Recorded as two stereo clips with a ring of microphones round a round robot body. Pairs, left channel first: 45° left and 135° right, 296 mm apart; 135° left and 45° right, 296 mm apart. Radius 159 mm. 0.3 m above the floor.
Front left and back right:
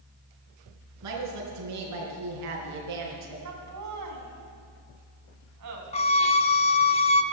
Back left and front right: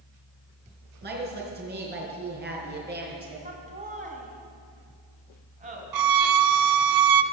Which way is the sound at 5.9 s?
25° right.